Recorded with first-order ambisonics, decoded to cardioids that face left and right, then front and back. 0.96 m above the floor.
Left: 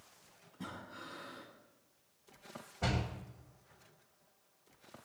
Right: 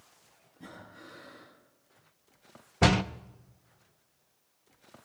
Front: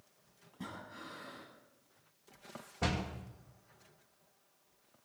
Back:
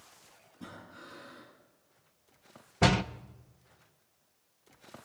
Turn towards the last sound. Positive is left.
turn(degrees=-125)